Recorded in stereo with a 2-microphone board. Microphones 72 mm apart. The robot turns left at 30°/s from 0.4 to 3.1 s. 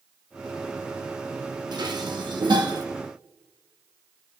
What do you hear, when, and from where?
1.7 s dishes clattering: 70° right, 1.2 m; by 2.8 s 105° right, 1.2 m